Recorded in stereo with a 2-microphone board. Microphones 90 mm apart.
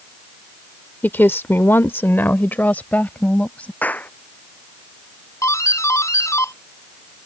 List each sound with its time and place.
1.0 s a woman speaking: 20° left (ahead or behind); by 3.7 s 15° left (ahead or behind)
3.8 s a clap: 15° left (ahead or behind)
5.4 s a doorbell: 35° left (ahead or behind)